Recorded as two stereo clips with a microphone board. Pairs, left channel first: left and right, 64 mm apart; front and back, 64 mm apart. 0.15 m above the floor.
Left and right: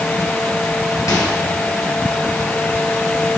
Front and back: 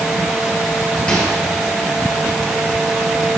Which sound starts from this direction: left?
A microwave, at 1.1 s.